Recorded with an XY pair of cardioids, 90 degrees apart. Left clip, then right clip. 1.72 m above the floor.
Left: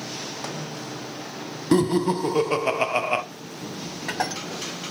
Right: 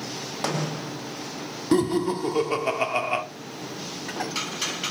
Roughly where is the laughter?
Ahead left.